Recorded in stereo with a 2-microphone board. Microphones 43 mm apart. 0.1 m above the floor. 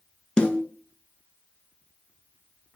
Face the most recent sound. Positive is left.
turn(degrees=20)  # may be behind; listen again after turning